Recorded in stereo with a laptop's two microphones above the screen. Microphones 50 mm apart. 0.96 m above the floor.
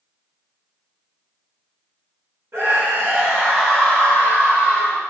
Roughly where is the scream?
Right.